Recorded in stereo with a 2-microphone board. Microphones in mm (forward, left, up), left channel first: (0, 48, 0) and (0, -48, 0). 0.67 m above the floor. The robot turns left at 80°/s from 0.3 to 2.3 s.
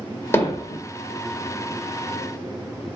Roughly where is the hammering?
Left.